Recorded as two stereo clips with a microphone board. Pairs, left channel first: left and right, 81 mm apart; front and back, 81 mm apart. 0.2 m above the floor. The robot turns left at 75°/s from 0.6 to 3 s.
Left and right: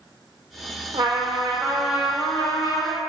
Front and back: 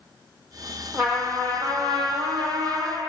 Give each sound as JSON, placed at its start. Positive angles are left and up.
{"t": 0.9, "sound": "a trumpet", "azimuth_deg": -90, "distance_m": 1.1}